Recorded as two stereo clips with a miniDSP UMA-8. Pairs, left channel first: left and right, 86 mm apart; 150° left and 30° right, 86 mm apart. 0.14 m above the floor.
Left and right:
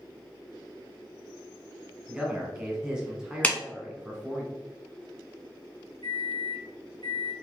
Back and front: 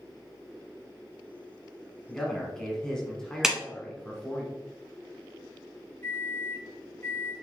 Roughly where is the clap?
Ahead left.